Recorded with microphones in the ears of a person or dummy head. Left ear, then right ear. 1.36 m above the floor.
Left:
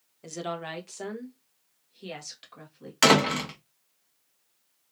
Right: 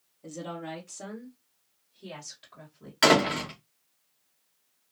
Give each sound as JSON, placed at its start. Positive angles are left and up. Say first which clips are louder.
{"t": 0.2, "sound": "a woman speaking", "louder": "left 4 dB", "side_deg": 60, "distance_m": 1.2}
{"t": 3.0, "sound": "a door slam", "louder": "left 1 dB", "side_deg": 10, "distance_m": 0.9}